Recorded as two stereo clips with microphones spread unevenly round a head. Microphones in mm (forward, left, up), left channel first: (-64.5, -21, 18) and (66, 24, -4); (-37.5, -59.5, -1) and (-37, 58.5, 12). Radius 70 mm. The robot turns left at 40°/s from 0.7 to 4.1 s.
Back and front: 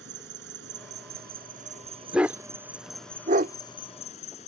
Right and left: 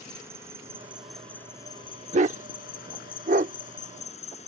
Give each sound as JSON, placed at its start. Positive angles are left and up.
{"t": 0.0, "sound": "an insect", "azimuth_deg": 15}
{"t": 2.1, "sound": "a dog barking", "azimuth_deg": 105}